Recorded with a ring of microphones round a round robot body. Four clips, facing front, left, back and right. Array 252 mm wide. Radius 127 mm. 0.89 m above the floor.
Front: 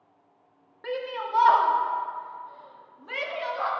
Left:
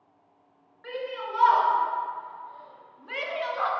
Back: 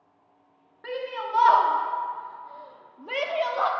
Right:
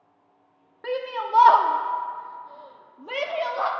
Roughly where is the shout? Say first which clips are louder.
Right 5 dB, even; right.